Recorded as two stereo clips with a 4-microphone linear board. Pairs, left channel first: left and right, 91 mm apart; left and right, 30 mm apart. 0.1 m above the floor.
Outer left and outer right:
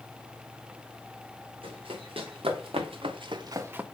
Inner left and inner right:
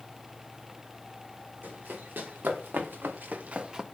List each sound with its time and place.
1.6 s running footsteps: 75° right (ahead or behind), 2 m; by 3.8 s 15° right (ahead or behind), 0.6 m